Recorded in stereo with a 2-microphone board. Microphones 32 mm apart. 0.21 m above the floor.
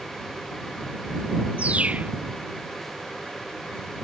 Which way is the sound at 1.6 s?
50° right (ahead or behind).